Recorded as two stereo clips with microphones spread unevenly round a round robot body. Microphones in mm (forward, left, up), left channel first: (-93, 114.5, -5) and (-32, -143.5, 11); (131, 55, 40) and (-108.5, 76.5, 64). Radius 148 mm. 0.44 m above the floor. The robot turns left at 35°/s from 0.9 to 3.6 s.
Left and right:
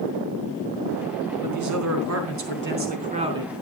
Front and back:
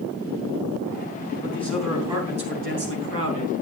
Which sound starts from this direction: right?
A man speaking, at 1.4 s.